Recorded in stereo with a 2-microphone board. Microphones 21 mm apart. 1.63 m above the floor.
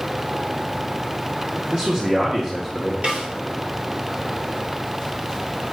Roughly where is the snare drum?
Right.